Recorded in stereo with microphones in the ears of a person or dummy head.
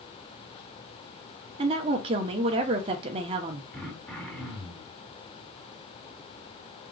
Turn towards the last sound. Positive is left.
turn(degrees=15)  # may be behind; listen again after turning